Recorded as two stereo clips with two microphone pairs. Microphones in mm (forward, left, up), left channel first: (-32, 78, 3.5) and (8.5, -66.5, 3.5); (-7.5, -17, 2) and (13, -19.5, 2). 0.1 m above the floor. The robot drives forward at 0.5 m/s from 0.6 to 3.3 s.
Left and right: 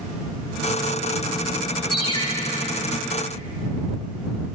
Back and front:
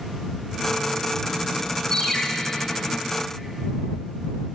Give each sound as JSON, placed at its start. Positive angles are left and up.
{"t": 1.9, "sound": "a ringtone", "azimuth_deg": 140, "distance_m": 0.7}